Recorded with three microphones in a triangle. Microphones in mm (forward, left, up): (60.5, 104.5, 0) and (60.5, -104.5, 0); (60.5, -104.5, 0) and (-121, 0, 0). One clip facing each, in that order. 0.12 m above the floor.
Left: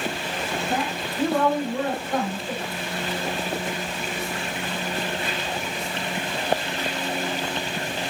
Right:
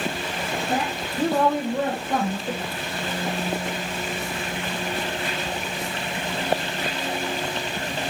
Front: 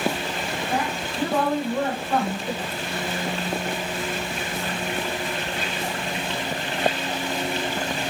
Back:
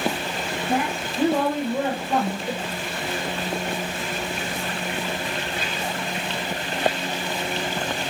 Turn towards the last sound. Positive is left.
turn(degrees=-130)